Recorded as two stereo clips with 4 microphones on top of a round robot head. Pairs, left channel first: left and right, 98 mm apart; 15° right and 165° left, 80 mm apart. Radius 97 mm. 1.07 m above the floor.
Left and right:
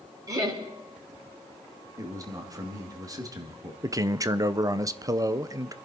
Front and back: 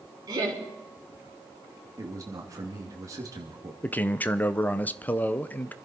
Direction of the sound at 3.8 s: 70° right.